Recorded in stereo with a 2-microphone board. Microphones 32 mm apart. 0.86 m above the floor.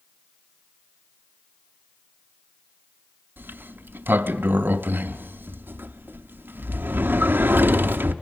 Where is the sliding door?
75° right (ahead or behind), 0.6 m.